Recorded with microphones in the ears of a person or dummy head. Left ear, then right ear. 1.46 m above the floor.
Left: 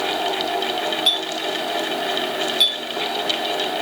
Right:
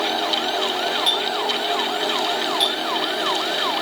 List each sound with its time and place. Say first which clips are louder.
1.1 s a clink: even; 10° left (ahead or behind), 2 m